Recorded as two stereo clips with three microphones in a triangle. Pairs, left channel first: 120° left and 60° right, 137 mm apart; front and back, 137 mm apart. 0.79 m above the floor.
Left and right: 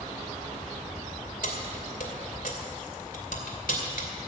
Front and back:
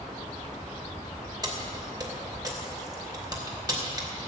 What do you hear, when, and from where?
1.4 s keys jangling: 120° left, 2.5 m